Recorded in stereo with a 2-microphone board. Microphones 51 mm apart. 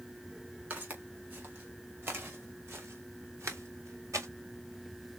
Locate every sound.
0.7 s footsteps: 35° right (ahead or behind), 3.5 m; by 4.3 s 75° right (ahead or behind), 1.7 m